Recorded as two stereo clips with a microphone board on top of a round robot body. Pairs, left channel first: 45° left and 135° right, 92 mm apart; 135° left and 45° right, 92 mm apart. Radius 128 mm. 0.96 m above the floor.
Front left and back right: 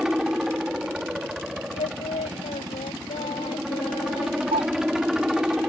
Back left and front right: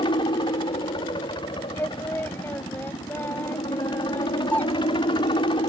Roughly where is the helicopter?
Behind left.